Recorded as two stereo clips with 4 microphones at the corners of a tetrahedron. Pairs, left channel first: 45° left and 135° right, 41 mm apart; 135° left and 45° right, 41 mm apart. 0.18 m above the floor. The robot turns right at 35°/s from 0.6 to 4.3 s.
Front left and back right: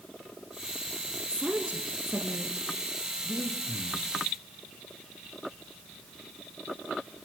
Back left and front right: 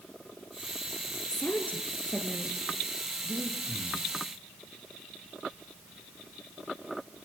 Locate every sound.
1.3 s a woman speaking: 170° left, 3 m; by 2.6 s 145° right, 3 m
3.2 s breathing: 115° left, 3.5 m; by 4.0 s 145° left, 3.5 m